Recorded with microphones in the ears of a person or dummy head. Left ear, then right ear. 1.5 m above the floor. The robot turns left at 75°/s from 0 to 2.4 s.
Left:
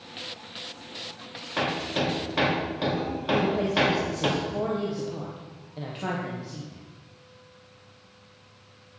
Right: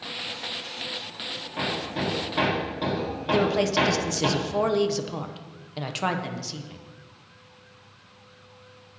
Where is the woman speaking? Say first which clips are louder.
Right 2 dB; 55° right (ahead or behind), 1.0 m.